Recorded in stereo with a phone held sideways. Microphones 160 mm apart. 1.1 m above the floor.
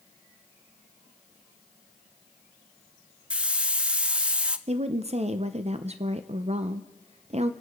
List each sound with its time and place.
3.3 s a hiss: 5° right (ahead or behind), 0.5 m
4.7 s a woman speaking: 40° right (ahead or behind), 0.5 m